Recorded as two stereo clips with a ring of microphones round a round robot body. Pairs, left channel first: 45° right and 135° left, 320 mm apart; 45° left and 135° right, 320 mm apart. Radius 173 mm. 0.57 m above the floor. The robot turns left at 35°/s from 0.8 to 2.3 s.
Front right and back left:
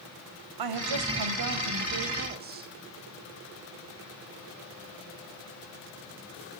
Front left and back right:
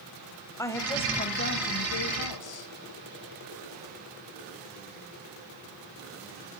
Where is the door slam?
I don't hear a door slam.